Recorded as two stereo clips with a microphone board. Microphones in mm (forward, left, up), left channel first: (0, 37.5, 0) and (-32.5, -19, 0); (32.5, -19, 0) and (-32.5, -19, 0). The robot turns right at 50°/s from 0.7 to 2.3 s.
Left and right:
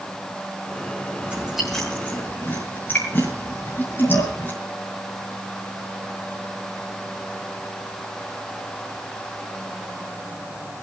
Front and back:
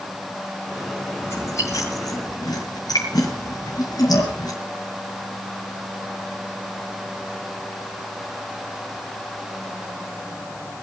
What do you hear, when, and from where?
1.2 s chewing: 50° right, 6.5 m; by 4.5 s 5° left, 6.5 m